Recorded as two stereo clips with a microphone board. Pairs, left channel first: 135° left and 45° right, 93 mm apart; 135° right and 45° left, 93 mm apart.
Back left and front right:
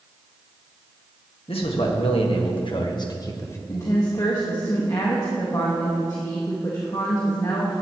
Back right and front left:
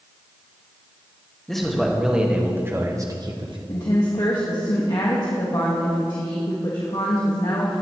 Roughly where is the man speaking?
Behind left.